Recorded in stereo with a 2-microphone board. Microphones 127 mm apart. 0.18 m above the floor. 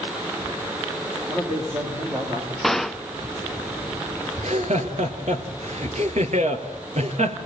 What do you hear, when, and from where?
1.3 s a man speaking: 35° right (ahead or behind), 9 m
2.6 s a gunshot: centre (ahead or behind), 0.5 m
4.4 s laughter: 60° right (ahead or behind), 2.5 m